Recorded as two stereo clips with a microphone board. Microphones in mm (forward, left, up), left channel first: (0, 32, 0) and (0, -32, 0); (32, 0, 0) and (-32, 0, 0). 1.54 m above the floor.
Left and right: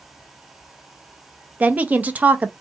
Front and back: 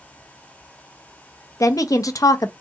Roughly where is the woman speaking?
Ahead right.